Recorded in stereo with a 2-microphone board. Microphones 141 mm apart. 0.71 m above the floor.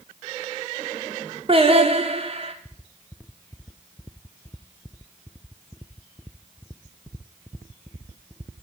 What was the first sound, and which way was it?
Singing, 40° right (ahead or behind).